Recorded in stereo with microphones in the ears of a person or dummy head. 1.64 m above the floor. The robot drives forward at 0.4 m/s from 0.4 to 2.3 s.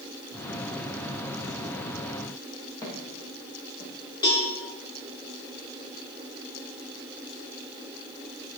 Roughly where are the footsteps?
Centre.